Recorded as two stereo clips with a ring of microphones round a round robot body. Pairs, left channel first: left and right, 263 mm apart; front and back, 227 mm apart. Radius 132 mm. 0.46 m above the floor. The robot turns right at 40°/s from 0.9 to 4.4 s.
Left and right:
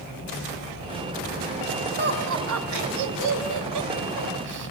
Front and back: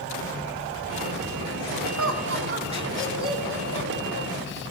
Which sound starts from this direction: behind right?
Laughter, at 2.0 s.